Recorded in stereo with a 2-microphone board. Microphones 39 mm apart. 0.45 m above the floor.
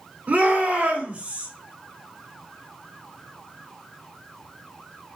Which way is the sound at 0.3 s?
45° right (ahead or behind).